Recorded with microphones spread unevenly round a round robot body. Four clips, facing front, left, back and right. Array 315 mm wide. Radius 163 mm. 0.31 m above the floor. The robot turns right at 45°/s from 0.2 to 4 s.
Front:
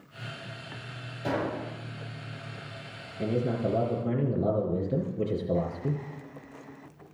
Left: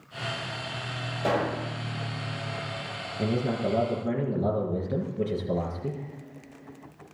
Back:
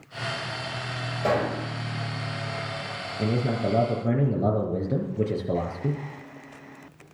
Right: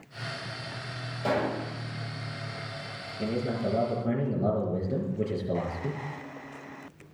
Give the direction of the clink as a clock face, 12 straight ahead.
No clink in this recording.